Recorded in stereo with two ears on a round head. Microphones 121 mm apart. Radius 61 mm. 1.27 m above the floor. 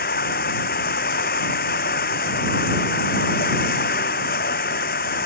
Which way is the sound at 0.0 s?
75° left (ahead or behind).